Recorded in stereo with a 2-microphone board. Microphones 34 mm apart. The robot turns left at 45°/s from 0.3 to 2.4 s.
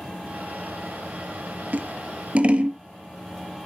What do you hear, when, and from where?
1.7 s scissors: 65° right (ahead or behind), 0.7 m; by 2.8 s 40° right (ahead or behind), 0.7 m